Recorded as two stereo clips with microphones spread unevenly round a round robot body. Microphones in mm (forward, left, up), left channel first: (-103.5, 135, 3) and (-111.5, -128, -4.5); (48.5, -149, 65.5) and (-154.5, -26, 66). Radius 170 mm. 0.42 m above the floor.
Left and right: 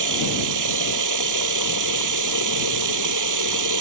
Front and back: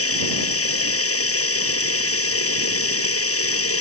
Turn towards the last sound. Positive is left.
turn(degrees=-55)